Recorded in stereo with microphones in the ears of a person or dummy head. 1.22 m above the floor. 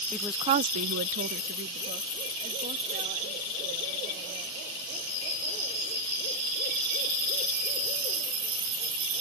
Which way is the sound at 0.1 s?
Centre (ahead or behind).